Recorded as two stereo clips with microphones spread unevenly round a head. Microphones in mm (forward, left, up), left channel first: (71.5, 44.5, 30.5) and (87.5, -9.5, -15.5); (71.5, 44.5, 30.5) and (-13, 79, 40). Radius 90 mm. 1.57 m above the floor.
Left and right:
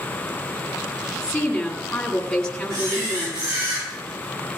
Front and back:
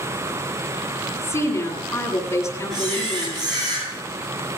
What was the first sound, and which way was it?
A woman speaking, 30° left.